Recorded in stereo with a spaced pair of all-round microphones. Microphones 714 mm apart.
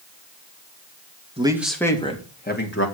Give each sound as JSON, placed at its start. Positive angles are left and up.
{"t": 1.4, "sound": "a man speaking", "side_deg": -10, "distance_m": 2.0}